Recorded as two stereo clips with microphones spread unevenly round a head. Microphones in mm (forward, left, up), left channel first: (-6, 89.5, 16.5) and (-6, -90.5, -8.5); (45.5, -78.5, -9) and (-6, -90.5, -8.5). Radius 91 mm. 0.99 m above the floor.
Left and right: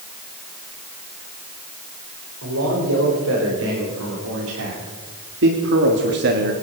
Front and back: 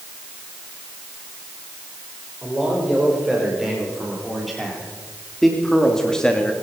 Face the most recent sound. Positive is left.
turn(degrees=-60)